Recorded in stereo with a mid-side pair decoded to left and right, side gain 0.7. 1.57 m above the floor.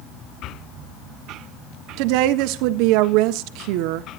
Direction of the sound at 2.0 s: 70° right.